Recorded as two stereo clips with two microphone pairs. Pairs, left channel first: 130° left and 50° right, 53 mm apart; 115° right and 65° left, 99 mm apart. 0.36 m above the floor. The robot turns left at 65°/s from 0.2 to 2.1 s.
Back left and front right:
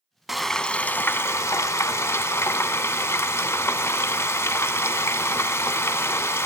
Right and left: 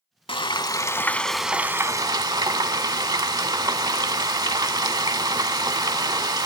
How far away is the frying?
About 0.6 m.